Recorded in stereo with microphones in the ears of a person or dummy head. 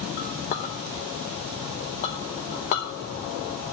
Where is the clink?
40° left (ahead or behind), 0.8 m.